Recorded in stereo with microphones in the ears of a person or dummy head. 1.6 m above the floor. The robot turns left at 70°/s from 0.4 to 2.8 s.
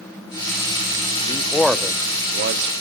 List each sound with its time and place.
1.3 s a man speaking: 30° left (ahead or behind), 0.6 m; by 2.7 s 70° right (ahead or behind), 0.6 m